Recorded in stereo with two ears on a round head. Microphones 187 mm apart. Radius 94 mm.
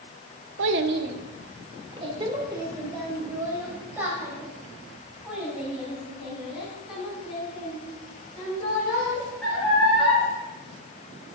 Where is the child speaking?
70° right (ahead or behind), 0.8 m; by 10.2 s centre (ahead or behind), 7 m.